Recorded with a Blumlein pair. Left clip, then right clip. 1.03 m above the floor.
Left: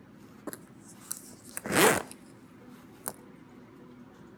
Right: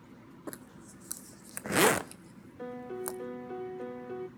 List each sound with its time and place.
0.5 s a zipper: 5° left, 0.5 m
2.6 s a piano: 55° right, 0.9 m